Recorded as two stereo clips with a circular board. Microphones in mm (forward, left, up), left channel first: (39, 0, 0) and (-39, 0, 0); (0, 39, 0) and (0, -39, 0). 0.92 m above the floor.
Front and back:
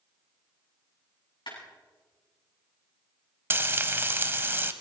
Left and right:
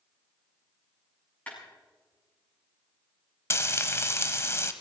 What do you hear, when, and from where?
1.5 s a clap: 15° left, 8 m
3.5 s frying: 130° left, 0.9 m